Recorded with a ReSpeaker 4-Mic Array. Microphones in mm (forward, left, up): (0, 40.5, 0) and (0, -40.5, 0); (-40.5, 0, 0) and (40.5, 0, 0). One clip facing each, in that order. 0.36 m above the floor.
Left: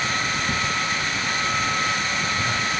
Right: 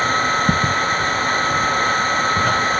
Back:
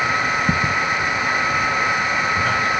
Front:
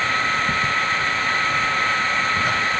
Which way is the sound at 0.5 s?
125° right.